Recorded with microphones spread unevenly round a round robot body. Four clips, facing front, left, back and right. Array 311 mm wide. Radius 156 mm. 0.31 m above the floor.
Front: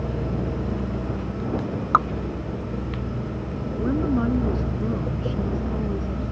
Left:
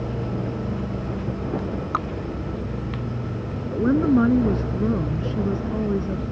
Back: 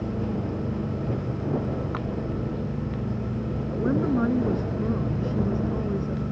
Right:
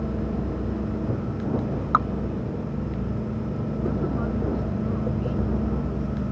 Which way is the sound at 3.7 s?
90° left.